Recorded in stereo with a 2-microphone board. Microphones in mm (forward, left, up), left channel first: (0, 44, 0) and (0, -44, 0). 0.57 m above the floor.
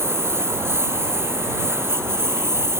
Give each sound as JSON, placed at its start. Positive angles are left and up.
{"t": 0.0, "sound": "a lawn mower", "side_deg": -30}